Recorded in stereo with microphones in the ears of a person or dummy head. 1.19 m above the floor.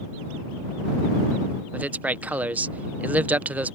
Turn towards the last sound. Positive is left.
turn(degrees=-10)  # may be behind; listen again after turning